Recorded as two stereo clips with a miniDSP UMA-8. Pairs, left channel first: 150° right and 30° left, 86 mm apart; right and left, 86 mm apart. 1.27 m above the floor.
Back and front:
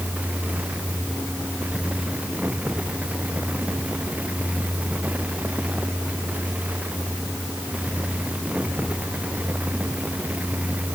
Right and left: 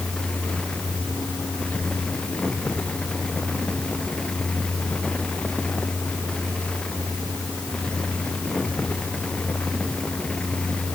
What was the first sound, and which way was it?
Only background noise.